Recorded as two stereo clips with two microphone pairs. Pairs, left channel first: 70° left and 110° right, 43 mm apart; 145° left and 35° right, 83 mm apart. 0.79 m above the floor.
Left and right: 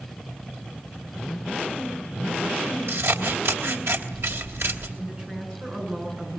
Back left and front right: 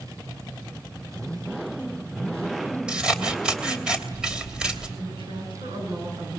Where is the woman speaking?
40° right, 10 m.